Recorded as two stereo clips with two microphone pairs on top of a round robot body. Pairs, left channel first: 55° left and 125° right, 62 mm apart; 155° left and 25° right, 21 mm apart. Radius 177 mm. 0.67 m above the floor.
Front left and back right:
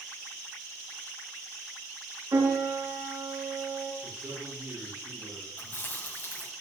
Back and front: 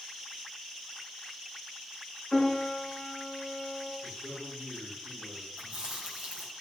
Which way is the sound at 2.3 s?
130° right.